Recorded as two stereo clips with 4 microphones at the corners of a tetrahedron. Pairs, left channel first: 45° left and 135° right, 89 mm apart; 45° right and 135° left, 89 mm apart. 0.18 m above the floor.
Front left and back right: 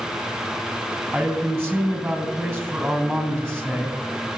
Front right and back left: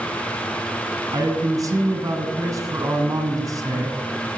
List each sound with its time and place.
1.1 s a man speaking: 135° left, 1.6 m